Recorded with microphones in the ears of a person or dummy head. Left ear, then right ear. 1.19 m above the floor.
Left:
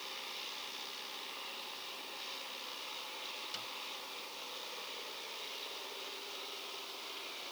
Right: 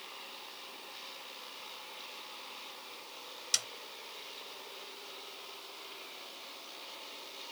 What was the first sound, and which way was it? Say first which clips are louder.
A snare drum: right 15 dB; 85° right.